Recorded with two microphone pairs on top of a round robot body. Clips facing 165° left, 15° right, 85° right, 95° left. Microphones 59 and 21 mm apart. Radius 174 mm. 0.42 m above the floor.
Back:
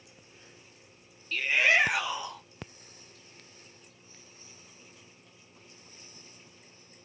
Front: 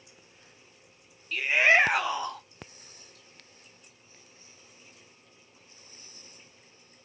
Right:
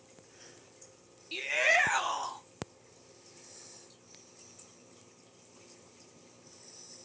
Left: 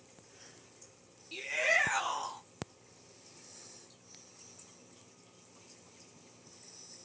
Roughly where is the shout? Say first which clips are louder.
Front 3 dB, right 3 dB; right.